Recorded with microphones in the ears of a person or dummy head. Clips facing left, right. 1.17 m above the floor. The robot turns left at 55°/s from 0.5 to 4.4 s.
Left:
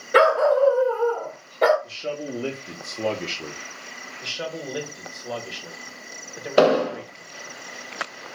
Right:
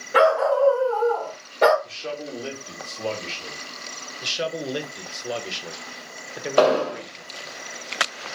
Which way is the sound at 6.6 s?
20° left (ahead or behind).